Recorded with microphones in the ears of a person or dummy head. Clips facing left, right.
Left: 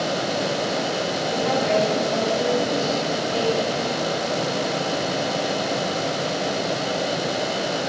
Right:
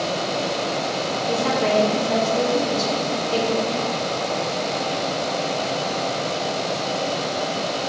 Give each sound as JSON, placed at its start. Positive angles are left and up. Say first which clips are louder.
{"t": 1.3, "sound": "a woman speaking", "louder": "right 1 dB", "side_deg": -85, "distance_m": 2.5}